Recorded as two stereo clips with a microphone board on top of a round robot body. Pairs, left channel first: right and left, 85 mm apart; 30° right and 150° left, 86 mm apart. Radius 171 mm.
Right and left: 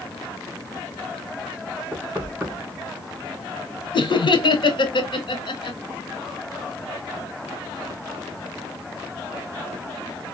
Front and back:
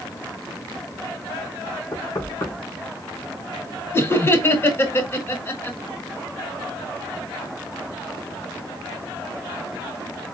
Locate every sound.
1.9 s knocking: 20° left, 3 m
3.9 s laughter: 90° right, 1.4 m